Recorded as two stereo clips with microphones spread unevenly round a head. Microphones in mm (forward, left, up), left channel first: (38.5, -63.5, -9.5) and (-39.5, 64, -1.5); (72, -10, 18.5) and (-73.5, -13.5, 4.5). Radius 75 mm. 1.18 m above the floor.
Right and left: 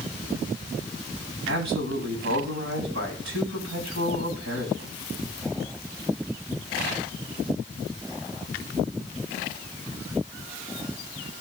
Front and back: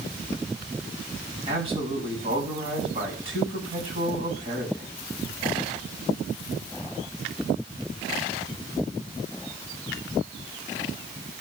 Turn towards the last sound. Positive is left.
turn(degrees=125)